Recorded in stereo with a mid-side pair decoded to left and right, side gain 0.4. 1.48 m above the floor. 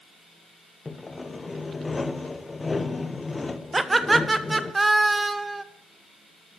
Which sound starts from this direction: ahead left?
Sawing, at 0.8 s.